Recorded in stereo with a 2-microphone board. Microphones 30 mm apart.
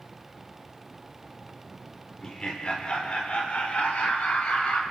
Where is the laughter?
30° left (ahead or behind), 1.9 m; by 4.8 s 60° left (ahead or behind), 2.5 m.